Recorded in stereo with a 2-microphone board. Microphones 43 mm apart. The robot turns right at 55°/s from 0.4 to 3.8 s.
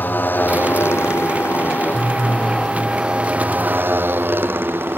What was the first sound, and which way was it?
A motorcycle, 50° left.